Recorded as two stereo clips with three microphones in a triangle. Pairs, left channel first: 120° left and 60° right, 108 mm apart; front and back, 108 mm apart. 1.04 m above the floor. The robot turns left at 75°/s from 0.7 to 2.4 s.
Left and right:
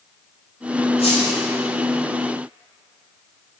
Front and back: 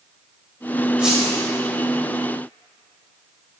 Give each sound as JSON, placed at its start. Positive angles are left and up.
{"t": 1.0, "sound": "a squeak", "azimuth_deg": 100, "distance_m": 2.0}